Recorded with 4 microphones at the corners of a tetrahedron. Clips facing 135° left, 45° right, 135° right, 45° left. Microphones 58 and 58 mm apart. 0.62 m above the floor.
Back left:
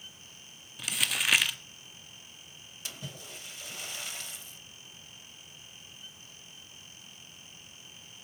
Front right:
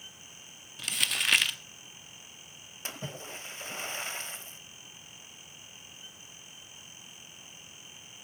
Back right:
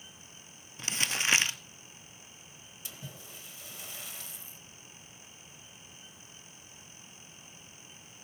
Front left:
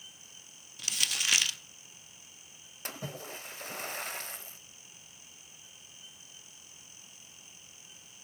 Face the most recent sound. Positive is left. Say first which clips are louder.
# front right 4 dB, front left 8 dB
turn(degrees=10)